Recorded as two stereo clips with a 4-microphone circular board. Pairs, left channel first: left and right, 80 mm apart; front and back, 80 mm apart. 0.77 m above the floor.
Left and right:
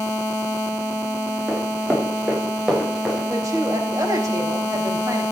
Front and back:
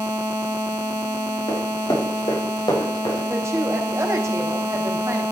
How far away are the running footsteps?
About 7.5 m.